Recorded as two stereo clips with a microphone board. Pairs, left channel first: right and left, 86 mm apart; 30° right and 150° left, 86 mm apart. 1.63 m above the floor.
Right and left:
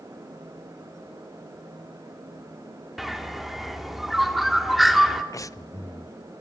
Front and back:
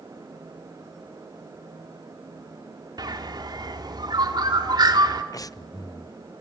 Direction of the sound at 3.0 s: Straight behind.